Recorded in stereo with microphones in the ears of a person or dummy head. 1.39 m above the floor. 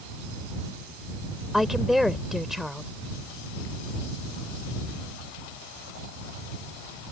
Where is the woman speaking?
5° right (ahead or behind).